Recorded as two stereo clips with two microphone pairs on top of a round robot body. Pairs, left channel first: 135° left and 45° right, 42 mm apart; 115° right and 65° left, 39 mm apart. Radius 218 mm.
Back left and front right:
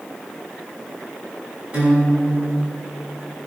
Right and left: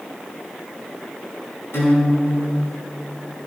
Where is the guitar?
110° right, 5 m.